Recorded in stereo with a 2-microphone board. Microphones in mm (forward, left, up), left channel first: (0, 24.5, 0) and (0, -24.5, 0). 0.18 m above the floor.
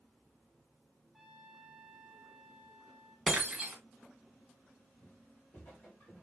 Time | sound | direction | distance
1.1 | a trumpet | centre (ahead or behind) | 2 m
3.3 | breaking glass | 5° right (ahead or behind) | 2.5 m
5.0 | footsteps | 40° left (ahead or behind) | 4.5 m